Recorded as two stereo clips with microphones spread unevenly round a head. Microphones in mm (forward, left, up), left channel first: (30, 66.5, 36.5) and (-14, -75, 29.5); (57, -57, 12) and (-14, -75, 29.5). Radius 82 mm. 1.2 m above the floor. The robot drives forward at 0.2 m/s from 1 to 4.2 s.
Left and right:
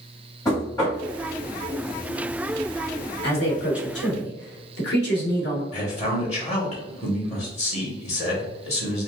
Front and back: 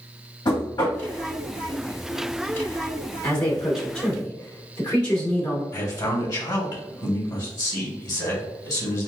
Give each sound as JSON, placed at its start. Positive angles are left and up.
{"t": 0.5, "sound": "knocking", "azimuth_deg": 10, "distance_m": 1.6}
{"t": 3.2, "sound": "a man speaking", "azimuth_deg": 65, "distance_m": 1.3}
{"t": 5.7, "sound": "a man speaking", "azimuth_deg": 30, "distance_m": 1.4}